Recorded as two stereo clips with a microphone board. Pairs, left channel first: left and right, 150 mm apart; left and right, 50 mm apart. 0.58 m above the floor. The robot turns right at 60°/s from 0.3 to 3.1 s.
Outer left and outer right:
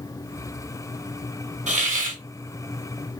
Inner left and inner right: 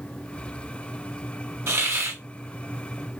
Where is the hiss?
110° right, 1.6 m; by 2.2 s 80° right, 1.6 m.